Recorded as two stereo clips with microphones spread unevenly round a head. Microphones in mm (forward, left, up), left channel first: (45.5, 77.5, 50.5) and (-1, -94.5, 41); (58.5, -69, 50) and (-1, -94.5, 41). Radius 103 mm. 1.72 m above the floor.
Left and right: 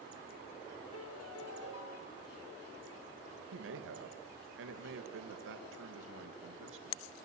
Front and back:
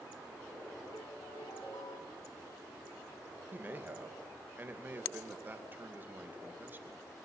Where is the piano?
85° left, 3 m.